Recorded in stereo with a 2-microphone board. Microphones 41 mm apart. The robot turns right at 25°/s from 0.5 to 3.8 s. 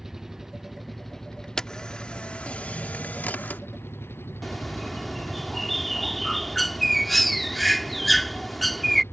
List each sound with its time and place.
0.0 s an engine running: 10° right; by 9.1 s 75° left
1.6 s a camera shutter: 15° left (ahead or behind); by 3.6 s 50° left (ahead or behind)
4.4 s a bird: 5° left (ahead or behind)